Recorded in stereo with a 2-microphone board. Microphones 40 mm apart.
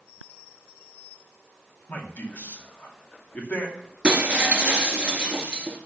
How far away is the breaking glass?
About 1.4 m.